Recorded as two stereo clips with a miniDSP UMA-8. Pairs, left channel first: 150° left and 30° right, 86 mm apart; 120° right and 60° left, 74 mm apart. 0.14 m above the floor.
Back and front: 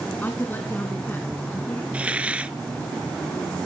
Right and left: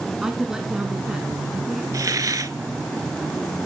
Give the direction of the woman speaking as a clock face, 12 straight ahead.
8 o'clock.